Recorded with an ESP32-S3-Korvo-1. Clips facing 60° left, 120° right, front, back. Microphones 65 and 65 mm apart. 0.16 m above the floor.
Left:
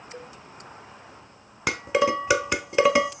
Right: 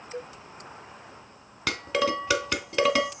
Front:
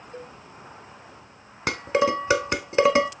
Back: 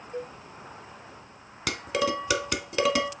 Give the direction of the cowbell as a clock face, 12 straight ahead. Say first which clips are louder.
Right 5 dB, back 5 dB; 5 o'clock.